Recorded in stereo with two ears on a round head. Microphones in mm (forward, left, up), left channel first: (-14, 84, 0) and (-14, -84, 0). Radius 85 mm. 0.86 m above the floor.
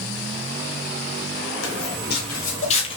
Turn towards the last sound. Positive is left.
turn(degrees=25)  # may be behind; listen again after turning